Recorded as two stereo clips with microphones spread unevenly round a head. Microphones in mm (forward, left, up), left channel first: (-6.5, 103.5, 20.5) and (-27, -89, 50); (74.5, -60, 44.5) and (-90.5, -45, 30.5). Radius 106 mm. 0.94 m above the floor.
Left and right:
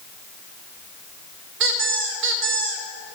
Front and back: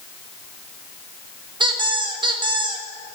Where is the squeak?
125° right, 1.3 m.